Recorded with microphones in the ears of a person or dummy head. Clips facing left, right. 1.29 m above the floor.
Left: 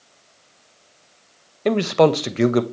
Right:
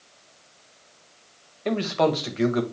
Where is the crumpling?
No crumpling in this recording.